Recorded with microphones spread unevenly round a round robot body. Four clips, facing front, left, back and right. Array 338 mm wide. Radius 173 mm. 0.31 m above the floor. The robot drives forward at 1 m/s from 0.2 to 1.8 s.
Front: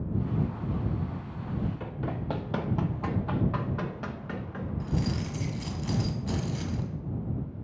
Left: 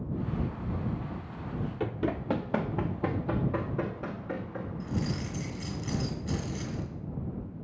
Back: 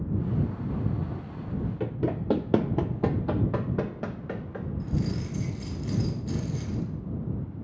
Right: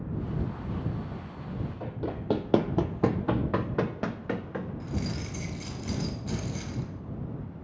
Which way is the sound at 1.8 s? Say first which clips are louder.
Left 6 dB, back 6 dB; 150° left.